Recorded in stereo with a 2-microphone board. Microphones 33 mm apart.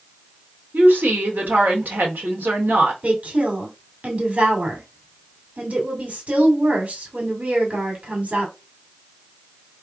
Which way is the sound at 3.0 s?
50° right (ahead or behind).